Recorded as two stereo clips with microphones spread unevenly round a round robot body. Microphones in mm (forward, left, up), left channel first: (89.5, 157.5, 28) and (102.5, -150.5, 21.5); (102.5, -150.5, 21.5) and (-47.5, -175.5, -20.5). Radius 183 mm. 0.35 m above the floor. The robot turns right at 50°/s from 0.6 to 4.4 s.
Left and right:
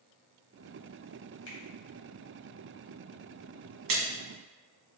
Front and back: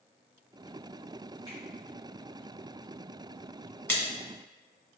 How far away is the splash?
About 1.2 m.